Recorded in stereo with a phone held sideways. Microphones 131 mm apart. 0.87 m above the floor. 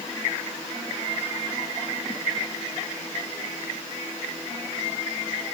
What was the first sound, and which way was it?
Only background noise.